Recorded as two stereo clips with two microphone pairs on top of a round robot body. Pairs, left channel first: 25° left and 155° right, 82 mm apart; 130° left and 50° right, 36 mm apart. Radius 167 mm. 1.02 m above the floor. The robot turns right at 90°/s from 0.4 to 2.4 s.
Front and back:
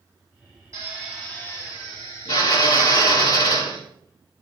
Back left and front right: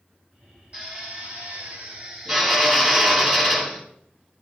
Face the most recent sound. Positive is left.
turn(degrees=50)